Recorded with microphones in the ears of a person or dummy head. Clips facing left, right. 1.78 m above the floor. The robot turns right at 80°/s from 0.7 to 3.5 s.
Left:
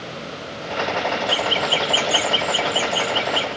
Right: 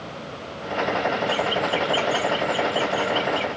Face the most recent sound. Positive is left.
turn(degrees=-175)